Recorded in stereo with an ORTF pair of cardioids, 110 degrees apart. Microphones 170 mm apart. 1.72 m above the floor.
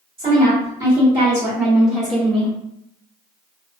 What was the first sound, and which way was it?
A woman speaking, 35° right.